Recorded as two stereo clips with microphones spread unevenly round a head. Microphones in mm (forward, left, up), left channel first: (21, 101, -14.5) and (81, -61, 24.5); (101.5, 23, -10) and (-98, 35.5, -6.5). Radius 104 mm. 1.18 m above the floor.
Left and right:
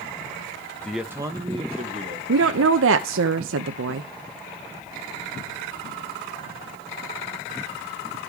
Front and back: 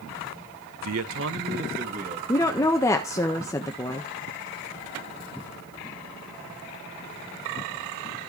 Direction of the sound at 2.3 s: 80° right.